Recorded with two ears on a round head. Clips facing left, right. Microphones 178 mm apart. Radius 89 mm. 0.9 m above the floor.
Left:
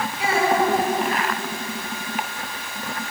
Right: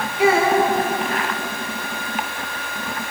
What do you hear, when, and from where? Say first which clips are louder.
0.2 s a child speaking: right 5 dB; 50° right (ahead or behind), 6 m